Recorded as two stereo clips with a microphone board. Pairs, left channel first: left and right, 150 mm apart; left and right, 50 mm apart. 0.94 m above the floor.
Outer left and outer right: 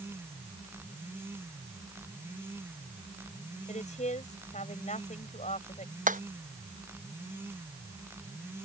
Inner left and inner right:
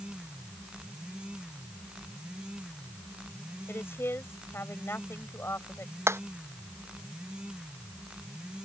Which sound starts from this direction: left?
A woman speaking, at 3.7 s.